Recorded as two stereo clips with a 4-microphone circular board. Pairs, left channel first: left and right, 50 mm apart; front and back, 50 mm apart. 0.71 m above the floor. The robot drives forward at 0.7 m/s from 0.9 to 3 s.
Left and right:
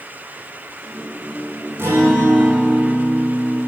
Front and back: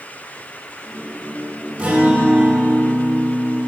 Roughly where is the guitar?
Behind right.